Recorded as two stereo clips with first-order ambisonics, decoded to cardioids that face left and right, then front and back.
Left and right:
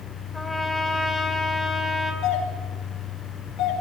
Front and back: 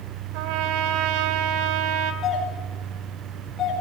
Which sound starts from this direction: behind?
A trumpet, at 0.3 s.